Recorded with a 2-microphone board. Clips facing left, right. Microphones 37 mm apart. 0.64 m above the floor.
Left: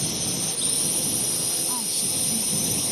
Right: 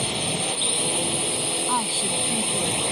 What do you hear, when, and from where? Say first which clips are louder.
0.0 s a drone: right 4 dB; 35° right (ahead or behind)
1.7 s a woman speaking: right 7 dB; 45° right (ahead or behind)